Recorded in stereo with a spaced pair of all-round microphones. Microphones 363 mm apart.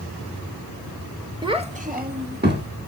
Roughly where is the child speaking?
Centre.